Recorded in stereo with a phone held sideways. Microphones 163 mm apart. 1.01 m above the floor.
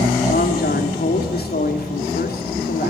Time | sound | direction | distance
0.3 | a man speaking | 75° left (ahead or behind) | 3 m